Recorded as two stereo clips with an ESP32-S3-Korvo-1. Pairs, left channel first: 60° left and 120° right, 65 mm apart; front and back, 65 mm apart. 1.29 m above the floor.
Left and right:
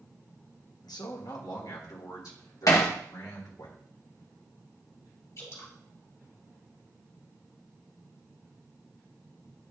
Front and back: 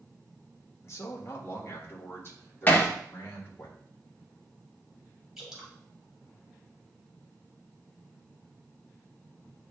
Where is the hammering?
55° left, 1.2 m.